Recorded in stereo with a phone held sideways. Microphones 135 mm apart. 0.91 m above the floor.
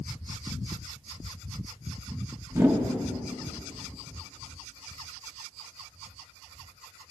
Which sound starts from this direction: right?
A whoosh, at 2.5 s.